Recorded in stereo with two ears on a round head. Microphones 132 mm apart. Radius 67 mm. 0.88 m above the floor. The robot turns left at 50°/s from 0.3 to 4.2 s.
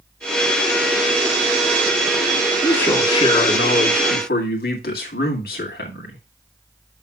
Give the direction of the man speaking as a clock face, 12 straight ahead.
6 o'clock.